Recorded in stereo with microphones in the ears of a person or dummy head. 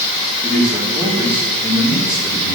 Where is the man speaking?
10° right (ahead or behind), 3.5 m; by 2.6 s centre (ahead or behind), 4.5 m.